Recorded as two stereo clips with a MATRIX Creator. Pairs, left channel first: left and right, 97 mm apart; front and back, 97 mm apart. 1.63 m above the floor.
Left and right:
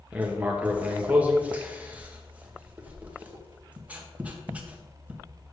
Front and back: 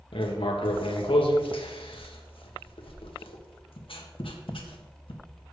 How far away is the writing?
About 1.4 m.